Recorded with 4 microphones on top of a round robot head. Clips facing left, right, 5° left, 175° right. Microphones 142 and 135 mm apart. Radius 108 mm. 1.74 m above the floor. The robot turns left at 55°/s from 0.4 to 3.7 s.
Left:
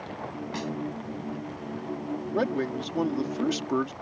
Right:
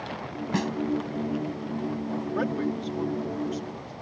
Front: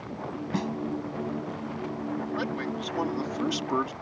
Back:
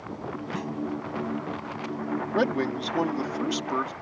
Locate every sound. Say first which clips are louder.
0.5 s a snare drum: right 7 dB, front 5 dB; 60° right; by 0.7 s 70° right
2.3 s a man speaking: left 2 dB, back 6 dB; 160° left; by 3.9 s 85° left